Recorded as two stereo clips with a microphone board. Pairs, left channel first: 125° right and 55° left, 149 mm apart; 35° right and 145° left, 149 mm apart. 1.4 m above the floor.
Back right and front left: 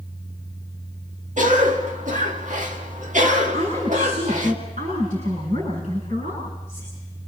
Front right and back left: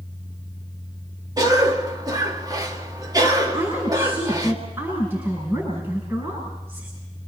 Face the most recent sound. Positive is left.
turn(degrees=75)